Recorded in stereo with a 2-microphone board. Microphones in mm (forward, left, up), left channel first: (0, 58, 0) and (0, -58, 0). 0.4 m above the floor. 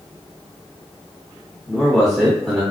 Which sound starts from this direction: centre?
A man speaking, at 1.7 s.